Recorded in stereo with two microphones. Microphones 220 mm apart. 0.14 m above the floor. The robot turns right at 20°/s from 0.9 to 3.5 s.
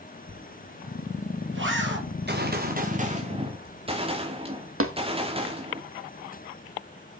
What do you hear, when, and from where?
0.3 s a zipper: 65° right (ahead or behind), 4 m; by 2.0 s 55° right (ahead or behind), 4 m
2.1 s a gunshot: 55° right (ahead or behind), 2.5 m; by 5.8 s 25° right (ahead or behind), 2.5 m
4.8 s tapping: 75° right (ahead or behind), 1.6 m